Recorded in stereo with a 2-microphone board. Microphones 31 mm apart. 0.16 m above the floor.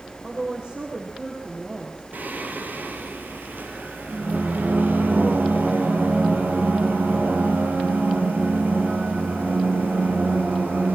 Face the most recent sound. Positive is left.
turn(degrees=-65)  # may be behind; listen again after turning